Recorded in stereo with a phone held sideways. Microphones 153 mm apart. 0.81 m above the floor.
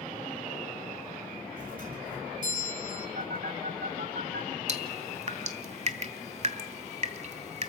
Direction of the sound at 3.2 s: 85° right.